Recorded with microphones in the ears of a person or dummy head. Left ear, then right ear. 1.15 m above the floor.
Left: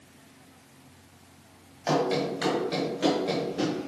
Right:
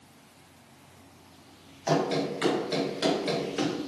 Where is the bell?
I don't hear a bell.